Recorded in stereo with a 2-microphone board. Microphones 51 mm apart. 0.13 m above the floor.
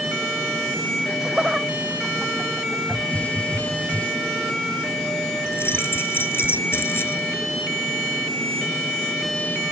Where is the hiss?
30° left (ahead or behind).